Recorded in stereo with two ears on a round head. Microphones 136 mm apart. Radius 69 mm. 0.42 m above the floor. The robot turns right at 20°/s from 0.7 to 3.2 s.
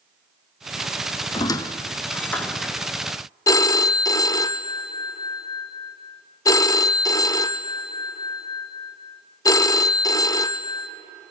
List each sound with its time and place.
1.3 s a squeak: 30° left (ahead or behind), 1.0 m; by 2.8 s centre (ahead or behind), 1.0 m
3.5 s a phone ringing: 25° left (ahead or behind), 0.5 m